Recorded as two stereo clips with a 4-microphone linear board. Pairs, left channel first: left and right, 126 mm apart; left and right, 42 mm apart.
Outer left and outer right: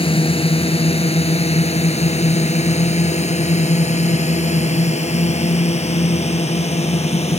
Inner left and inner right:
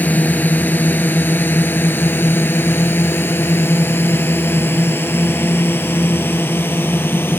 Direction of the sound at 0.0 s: 45° left (ahead or behind).